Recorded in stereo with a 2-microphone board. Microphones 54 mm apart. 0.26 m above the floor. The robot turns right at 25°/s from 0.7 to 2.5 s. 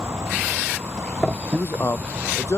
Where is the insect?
120° right; by 2.6 s 75° right.